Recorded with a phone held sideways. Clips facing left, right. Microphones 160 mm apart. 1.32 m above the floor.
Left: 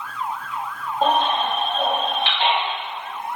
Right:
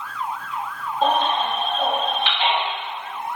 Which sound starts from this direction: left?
A baby crying, at 1.0 s.